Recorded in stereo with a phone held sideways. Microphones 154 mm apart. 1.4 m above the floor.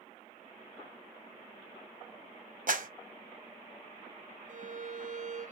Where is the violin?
55° right (ahead or behind), 0.6 m.